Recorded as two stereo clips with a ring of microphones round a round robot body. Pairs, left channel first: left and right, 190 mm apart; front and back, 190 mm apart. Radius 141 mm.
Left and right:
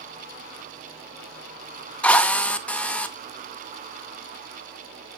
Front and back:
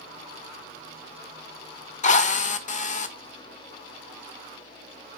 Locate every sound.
2.0 s a drill: 10° left, 1.2 m